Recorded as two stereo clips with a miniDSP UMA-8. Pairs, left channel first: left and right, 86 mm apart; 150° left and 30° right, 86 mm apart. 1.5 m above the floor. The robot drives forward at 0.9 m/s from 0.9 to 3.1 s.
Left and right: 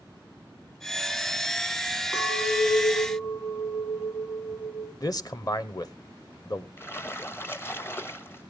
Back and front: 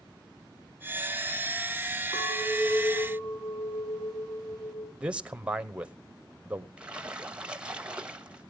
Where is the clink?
145° left, 7.5 m; by 4.9 s 150° left, 8 m.